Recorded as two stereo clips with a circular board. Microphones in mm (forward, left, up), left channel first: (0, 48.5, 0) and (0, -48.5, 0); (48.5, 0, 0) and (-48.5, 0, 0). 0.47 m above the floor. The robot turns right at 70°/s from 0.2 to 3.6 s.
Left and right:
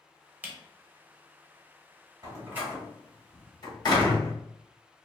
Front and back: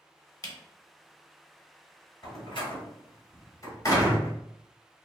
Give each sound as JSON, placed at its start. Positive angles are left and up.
{"t": 0.4, "sound": "a camera shutter", "azimuth_deg": -30, "distance_m": 0.8}
{"t": 2.2, "sound": "a door slam", "azimuth_deg": -45, "distance_m": 1.2}